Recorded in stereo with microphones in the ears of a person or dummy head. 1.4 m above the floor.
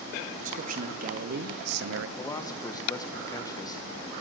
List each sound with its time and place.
0.3 s a man speaking: 40° right (ahead or behind), 1.6 m; by 2.1 s 65° right (ahead or behind), 0.7 m
2.2 s a man speaking: 20° left (ahead or behind), 1.3 m